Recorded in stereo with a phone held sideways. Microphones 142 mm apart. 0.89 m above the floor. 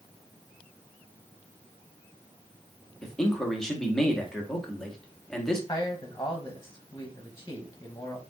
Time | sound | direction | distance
3.0 | a man speaking | 5° left (ahead or behind) | 1.2 m
5.7 | a man speaking | 20° left (ahead or behind) | 0.8 m